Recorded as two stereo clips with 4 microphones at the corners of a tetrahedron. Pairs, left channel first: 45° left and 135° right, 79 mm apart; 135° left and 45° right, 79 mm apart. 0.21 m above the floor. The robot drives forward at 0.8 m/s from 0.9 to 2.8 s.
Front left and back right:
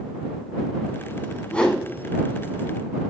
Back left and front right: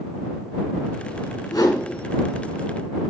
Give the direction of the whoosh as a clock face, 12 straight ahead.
8 o'clock.